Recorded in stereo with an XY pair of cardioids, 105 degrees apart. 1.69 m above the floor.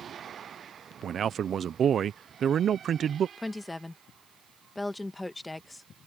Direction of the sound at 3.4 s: 15° left.